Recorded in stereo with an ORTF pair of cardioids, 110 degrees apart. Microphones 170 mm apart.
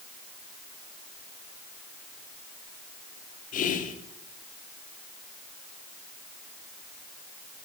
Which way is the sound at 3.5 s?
50° left.